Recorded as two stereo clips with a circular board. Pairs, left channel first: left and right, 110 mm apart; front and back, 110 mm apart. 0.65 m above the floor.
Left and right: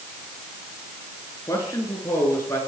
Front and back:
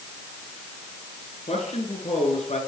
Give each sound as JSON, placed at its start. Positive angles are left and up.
{"t": 1.5, "sound": "a man speaking", "azimuth_deg": 25, "distance_m": 8.5}